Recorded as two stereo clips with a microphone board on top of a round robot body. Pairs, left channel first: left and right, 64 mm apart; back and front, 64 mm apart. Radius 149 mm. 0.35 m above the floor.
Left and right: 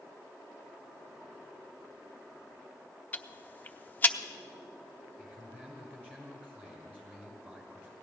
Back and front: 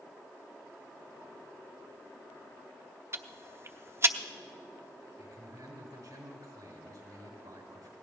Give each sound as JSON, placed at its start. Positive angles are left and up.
{"t": 3.1, "sound": "ticking", "azimuth_deg": 35, "distance_m": 0.9}
{"t": 5.2, "sound": "a man speaking", "azimuth_deg": -25, "distance_m": 6.0}